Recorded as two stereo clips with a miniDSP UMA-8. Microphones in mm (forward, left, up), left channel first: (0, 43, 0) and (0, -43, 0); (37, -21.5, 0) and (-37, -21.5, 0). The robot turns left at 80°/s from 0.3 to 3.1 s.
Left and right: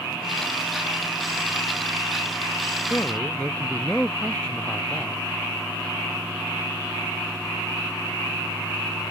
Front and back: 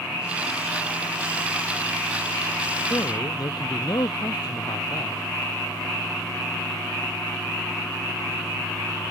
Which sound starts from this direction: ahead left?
A man speaking, at 2.9 s.